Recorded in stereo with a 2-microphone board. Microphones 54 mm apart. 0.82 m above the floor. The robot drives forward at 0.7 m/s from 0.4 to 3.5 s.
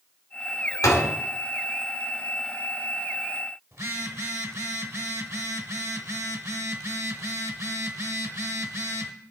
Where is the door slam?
85° left, 1.5 m; by 1.1 s 80° left, 1.5 m.